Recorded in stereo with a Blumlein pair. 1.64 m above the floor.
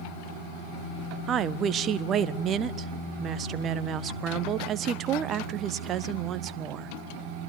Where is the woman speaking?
25° right, 1.3 m.